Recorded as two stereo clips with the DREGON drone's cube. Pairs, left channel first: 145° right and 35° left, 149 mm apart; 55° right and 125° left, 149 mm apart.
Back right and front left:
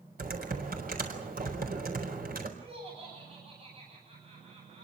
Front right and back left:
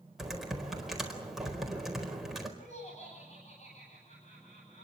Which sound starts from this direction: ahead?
Laughter, at 2.6 s.